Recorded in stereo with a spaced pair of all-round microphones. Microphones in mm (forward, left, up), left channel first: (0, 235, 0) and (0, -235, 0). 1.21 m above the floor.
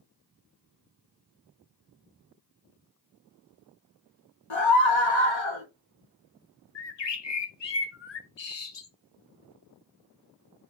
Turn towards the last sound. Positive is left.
turn(degrees=65)  # may be behind; listen again after turning